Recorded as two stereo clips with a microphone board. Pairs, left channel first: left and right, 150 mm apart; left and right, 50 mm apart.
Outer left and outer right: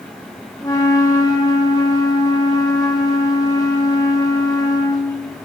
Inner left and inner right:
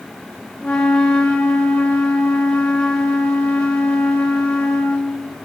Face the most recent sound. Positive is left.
turn(degrees=20)  # may be behind; listen again after turning